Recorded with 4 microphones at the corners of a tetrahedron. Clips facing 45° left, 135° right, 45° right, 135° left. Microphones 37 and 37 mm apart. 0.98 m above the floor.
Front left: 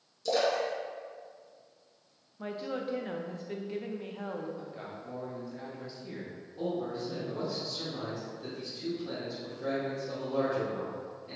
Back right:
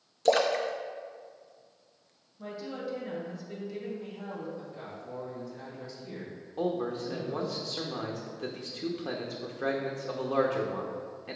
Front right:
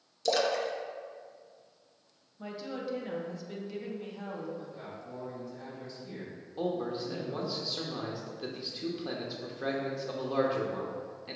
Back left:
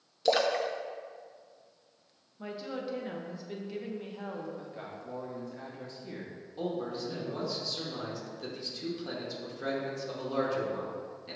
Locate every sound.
0.2 s a splash: 160° right, 0.6 m
2.4 s a woman speaking: 60° left, 0.9 m
4.6 s a man speaking: 115° left, 2.0 m
6.6 s a man speaking: 120° right, 0.8 m